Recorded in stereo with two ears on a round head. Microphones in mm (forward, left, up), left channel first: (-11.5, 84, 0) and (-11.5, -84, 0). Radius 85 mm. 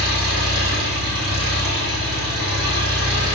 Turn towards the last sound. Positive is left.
turn(degrees=-25)  # may be behind; listen again after turning